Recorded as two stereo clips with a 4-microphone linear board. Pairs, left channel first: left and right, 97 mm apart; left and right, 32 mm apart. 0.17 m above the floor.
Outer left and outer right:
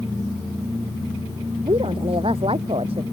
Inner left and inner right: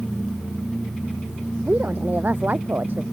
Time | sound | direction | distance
1.6 | a woman speaking | 70° right (ahead or behind) | ?